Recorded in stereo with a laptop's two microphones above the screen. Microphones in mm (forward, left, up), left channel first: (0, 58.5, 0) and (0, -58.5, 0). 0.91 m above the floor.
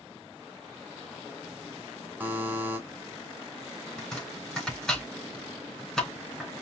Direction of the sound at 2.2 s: 15° right (ahead or behind).